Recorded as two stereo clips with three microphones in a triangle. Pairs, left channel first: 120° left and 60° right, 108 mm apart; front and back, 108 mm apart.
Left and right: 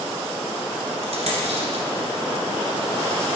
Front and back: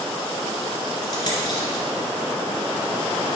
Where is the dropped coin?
45° right, 1.7 m.